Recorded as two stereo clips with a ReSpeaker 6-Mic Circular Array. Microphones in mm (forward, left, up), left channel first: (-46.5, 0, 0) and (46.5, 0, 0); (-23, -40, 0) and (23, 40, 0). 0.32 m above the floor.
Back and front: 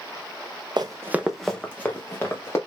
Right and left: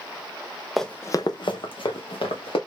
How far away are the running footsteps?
About 0.7 m.